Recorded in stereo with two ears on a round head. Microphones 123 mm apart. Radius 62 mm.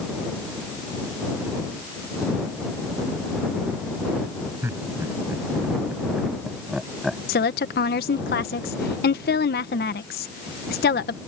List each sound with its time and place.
4.6 s laughter: 20° right (ahead or behind); by 7.2 s centre (ahead or behind)
7.3 s a woman speaking: 80° left